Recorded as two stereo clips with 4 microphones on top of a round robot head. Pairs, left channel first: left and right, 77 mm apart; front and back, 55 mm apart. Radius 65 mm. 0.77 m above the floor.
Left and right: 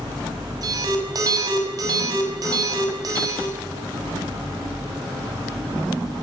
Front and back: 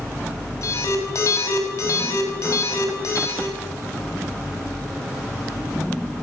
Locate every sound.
0.6 s an alarm: 45° right, 5.5 m